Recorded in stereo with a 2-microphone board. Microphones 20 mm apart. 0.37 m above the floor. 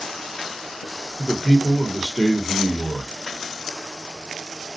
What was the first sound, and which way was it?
A man speaking, 10° left (ahead or behind).